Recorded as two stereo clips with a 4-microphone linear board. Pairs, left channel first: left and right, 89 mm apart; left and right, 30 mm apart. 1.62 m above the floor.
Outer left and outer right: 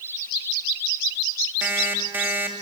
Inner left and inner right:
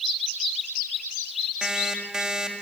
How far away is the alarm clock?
About 2 m.